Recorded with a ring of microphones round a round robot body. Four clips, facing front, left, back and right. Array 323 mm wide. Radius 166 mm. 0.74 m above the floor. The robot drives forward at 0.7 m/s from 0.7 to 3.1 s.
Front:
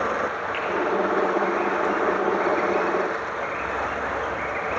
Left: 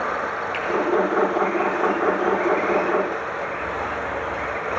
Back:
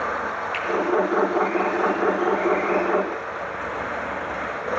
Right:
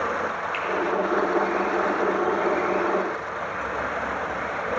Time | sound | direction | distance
0.5 | a finger snap | 160° left | 1.5 m